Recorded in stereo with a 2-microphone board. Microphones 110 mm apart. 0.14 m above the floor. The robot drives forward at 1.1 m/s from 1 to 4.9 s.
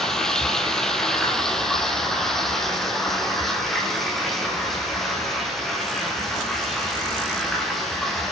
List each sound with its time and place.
0.0 s running water: 5° left (ahead or behind), 4.5 m; by 8.3 s centre (ahead or behind), 8.5 m